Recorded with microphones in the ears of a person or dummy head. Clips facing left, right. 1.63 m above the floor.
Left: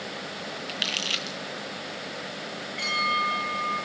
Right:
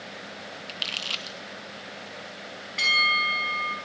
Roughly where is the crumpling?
Left.